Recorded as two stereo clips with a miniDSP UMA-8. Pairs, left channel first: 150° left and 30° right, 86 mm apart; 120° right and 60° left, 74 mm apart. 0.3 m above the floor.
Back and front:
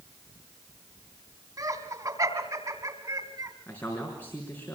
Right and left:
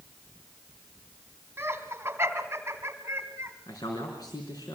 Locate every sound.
1.6 s laughter: 5° left, 3 m
3.7 s a man speaking: 145° right, 4 m